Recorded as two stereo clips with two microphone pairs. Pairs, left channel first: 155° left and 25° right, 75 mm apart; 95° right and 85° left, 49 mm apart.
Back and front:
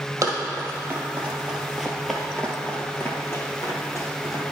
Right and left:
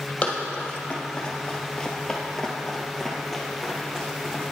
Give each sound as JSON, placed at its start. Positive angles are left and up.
{"t": 0.2, "sound": "running footsteps", "azimuth_deg": -50, "distance_m": 1.5}